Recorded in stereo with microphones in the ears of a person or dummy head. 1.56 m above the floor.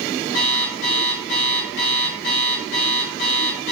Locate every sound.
0.3 s an alarm clock: 65° left (ahead or behind), 2 m